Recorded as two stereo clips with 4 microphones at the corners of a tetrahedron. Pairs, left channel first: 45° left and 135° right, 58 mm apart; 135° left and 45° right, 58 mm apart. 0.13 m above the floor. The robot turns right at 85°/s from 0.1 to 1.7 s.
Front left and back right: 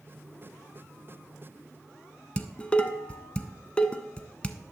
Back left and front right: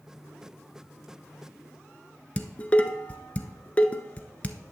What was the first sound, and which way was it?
Dishes clattering, 95° left.